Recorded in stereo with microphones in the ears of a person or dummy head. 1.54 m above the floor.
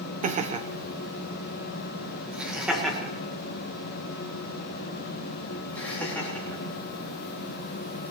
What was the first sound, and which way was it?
Laughter, 30° right (ahead or behind).